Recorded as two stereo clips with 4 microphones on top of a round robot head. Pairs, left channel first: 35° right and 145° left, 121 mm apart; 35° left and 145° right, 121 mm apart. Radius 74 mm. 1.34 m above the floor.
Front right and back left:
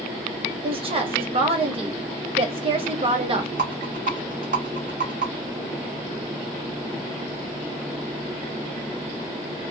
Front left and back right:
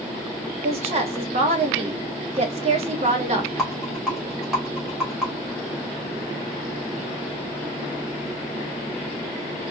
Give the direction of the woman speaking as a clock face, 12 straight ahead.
6 o'clock.